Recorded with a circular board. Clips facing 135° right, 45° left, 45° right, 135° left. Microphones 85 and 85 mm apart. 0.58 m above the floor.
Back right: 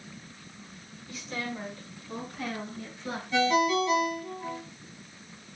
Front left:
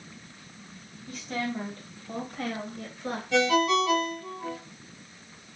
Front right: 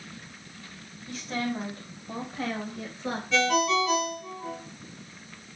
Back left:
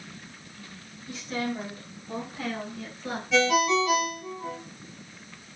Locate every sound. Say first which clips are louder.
1.1 s a woman speaking: front left 4 dB, even; straight ahead, 3.5 m; by 3.2 s 20° left, 3 m
3.3 s a ringtone: front left 1 dB, back left 2 dB; 45° left, 2 m